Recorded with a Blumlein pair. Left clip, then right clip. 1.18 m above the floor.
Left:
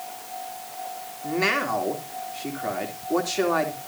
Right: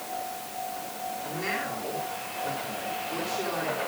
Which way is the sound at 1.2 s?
40° left.